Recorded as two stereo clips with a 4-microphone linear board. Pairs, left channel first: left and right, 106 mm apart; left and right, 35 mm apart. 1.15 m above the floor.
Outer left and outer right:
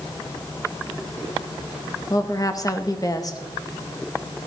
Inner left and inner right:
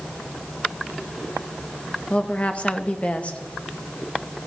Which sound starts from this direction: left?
A woman speaking, at 2.1 s.